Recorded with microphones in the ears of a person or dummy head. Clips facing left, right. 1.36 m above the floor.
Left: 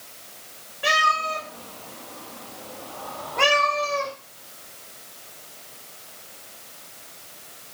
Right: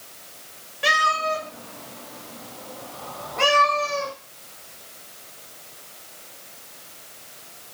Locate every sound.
0.8 s a cat meowing: 20° right (ahead or behind), 1.1 m; by 4.1 s 25° left (ahead or behind), 2 m